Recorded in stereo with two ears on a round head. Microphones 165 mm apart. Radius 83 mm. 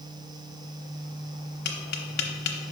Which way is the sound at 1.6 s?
60° left (ahead or behind).